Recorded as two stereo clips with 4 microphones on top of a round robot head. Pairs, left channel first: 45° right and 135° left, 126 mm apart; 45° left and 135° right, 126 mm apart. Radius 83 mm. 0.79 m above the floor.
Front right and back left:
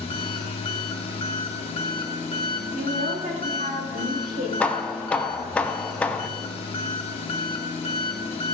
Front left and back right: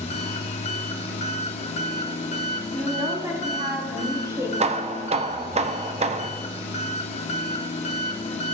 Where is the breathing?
I don't hear breathing.